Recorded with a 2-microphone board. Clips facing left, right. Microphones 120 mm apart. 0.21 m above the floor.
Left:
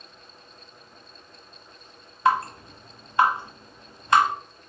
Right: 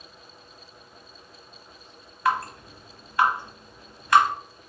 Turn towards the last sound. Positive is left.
turn(degrees=25)  # may be behind; listen again after turning